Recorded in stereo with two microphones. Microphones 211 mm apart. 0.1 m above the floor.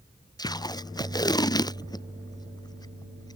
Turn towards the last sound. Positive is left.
turn(degrees=20)  # may be behind; listen again after turning